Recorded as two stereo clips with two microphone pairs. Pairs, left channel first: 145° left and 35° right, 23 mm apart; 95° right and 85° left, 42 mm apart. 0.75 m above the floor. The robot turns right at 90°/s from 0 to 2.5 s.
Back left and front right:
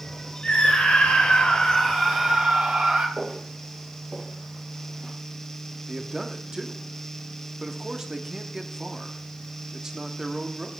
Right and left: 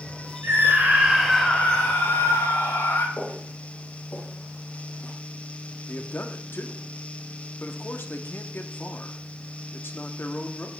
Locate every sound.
0.4 s a scream: 100° left, 3.5 m; by 3.1 s 75° right, 3.5 m
3.2 s footsteps: 60° right, 4.5 m; by 5.1 s 75° right, 3 m
5.9 s a man speaking: 90° right, 1.4 m